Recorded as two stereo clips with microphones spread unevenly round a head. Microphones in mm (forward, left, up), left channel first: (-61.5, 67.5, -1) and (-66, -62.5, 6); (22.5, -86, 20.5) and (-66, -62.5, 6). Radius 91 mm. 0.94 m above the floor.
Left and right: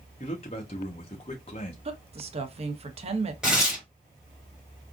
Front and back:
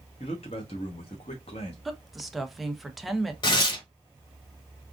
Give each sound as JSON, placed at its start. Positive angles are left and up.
{"t": 0.2, "sound": "a man speaking", "azimuth_deg": 30, "distance_m": 0.8}
{"t": 1.9, "sound": "a woman speaking", "azimuth_deg": -115, "distance_m": 0.8}
{"t": 3.4, "sound": "tearing paper", "azimuth_deg": -10, "distance_m": 1.1}